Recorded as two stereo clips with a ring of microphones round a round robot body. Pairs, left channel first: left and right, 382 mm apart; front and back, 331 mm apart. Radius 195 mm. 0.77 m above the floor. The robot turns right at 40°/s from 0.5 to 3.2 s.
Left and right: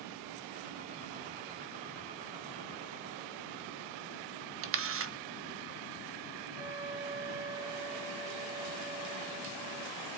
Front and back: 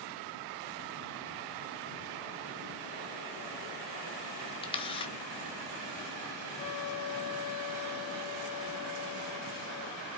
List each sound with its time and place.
4.6 s a camera shutter: 65° right, 1.0 m
6.6 s a flute: 25° right, 5 m